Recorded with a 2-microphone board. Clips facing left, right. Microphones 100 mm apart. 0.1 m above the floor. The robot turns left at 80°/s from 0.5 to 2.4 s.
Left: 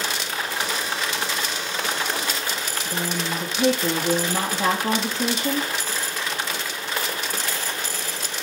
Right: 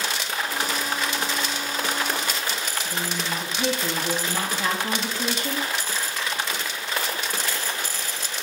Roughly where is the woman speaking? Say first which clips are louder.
Left 4 dB; left.